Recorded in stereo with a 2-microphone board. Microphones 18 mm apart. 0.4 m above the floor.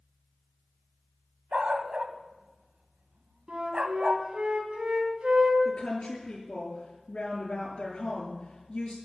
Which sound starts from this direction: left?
A woman speaking, at 5.7 s.